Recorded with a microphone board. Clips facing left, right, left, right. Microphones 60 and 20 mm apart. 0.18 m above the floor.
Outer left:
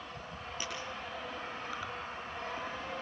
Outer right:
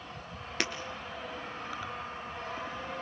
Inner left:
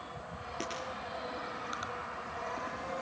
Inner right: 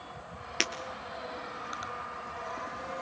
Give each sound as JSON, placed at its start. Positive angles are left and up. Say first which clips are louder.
{"t": 0.6, "sound": "breaking glass", "louder": "outer right 9 dB, inner right 10 dB", "side_deg": -75, "distance_m": 2.5}